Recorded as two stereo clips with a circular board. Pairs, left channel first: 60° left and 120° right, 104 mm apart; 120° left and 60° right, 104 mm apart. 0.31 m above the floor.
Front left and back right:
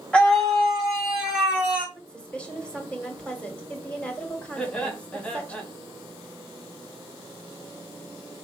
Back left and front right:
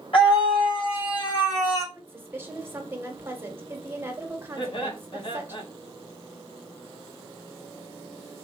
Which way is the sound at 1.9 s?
10° right.